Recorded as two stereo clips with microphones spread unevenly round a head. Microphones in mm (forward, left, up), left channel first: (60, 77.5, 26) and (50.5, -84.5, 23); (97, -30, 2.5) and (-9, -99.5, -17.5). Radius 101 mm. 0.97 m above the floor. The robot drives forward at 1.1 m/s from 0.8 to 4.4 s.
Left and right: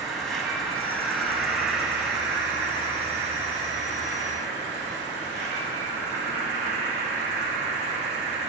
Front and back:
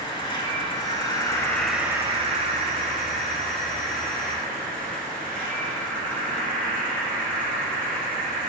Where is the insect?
Straight ahead, 1.3 m; by 8.5 s straight behind, 3 m.